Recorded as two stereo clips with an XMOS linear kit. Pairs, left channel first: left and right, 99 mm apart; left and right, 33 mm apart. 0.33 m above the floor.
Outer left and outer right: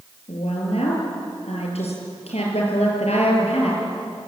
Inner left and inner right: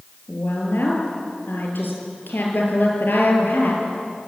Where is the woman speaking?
80° left, 8 m.